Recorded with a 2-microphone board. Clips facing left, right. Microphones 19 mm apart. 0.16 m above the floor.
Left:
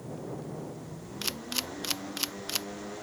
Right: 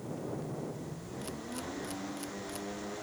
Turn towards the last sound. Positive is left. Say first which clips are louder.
# left 8 dB
turn(degrees=75)  # may be behind; listen again after turning